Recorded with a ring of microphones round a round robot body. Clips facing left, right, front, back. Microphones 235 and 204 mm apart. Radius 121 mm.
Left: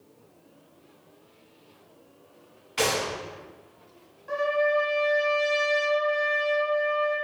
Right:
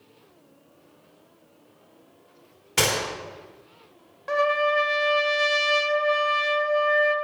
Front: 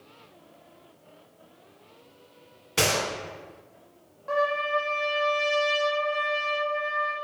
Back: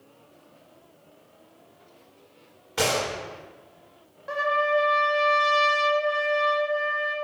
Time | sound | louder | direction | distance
2.8 | a gunshot | even, back 1 dB | 65° right | 1.7 m
4.3 | a trumpet | right 1 dB, back 1 dB | 100° right | 0.9 m